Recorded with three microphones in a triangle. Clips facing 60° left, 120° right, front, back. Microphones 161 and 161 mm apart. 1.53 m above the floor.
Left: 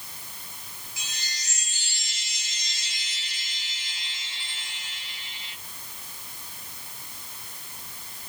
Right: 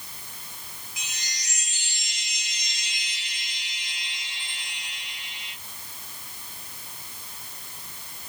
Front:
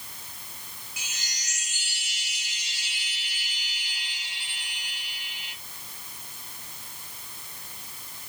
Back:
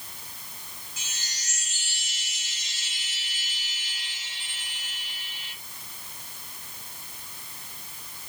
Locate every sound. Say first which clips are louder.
1.0 s a chime: left 1 dB, front 2 dB; 65° right, 1.2 m